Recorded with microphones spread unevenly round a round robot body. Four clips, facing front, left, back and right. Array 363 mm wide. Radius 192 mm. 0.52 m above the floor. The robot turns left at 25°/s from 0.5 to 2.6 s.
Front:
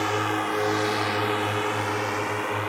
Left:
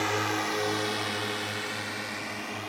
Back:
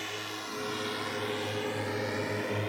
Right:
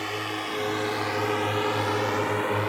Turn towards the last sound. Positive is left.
turn(degrees=-105)